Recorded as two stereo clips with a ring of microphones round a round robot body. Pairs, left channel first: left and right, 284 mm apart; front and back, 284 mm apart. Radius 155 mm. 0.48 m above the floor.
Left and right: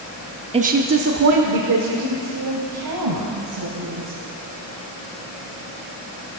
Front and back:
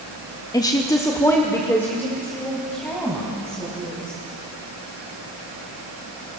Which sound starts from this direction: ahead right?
A woman speaking, at 0.5 s.